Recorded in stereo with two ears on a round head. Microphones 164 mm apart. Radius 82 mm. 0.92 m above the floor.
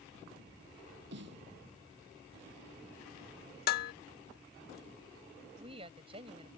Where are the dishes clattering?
55° left (ahead or behind).